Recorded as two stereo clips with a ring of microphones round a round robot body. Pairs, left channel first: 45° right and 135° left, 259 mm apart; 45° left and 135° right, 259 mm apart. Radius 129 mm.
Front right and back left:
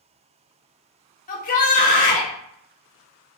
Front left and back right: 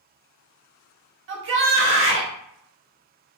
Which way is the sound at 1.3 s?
100° right.